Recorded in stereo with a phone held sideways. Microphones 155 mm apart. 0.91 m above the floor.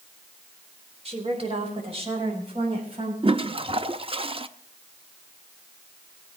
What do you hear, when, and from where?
1.1 s a woman speaking: 40° right (ahead or behind), 3 m; by 3.1 s 35° right (ahead or behind), 5.5 m
3.2 s a toilet flushing: 35° right (ahead or behind), 0.5 m